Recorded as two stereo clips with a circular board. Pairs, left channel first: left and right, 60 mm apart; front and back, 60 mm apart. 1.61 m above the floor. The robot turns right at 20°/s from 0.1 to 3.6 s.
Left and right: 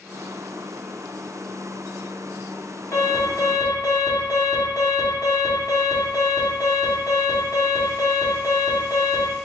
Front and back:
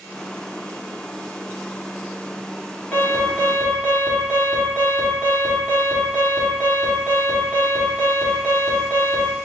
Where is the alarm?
60° left, 1.5 m; by 9.3 s 75° left, 1.5 m.